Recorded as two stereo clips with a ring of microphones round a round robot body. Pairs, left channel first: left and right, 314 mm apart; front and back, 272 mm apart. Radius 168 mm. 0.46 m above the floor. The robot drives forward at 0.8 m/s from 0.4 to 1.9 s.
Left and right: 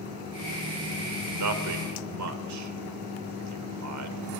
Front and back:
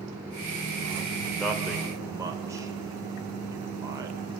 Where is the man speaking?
90° right, 2 m; by 4.2 s 100° right, 2 m.